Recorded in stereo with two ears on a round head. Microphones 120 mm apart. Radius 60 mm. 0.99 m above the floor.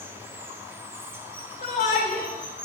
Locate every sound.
0.0 s running water: 20° right (ahead or behind), 1.1 m
1.6 s a shout: 65° left (ahead or behind), 3.5 m